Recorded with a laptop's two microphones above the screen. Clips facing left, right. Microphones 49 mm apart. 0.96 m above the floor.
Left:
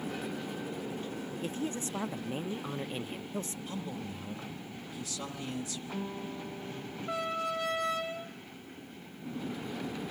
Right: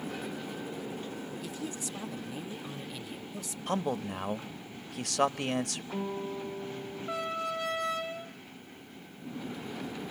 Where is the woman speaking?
35° left (ahead or behind), 0.6 m.